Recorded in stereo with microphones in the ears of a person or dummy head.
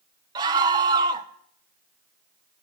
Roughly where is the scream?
Right.